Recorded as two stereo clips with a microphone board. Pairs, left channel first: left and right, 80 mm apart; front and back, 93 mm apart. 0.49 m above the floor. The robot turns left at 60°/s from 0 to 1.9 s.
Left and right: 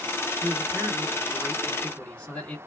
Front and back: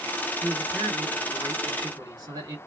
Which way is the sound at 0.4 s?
110° right.